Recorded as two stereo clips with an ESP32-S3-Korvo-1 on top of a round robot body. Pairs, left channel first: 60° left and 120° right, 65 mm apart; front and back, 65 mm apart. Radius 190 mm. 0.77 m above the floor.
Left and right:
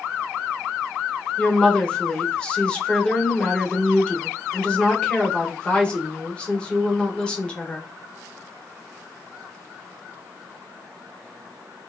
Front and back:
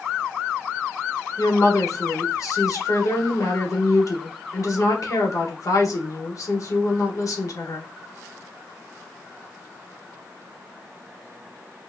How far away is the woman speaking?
About 1.2 m.